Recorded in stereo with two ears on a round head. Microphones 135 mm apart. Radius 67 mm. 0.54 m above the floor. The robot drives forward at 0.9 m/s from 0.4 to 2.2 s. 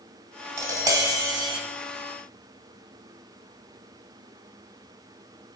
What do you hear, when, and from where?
0.6 s tapping: 20° right (ahead or behind), 2.5 m; by 1.6 s 30° right (ahead or behind), 1.5 m